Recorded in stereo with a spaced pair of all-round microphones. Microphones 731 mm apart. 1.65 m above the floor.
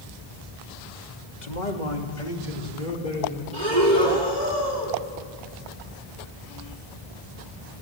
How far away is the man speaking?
About 2.5 m.